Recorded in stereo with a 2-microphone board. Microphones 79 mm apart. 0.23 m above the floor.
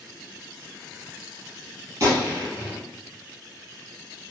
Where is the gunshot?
40° right (ahead or behind), 2.0 m.